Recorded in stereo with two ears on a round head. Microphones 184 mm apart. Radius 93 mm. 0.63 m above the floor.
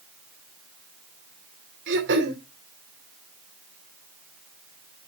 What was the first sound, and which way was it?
Throat clearing, 60° right (ahead or behind).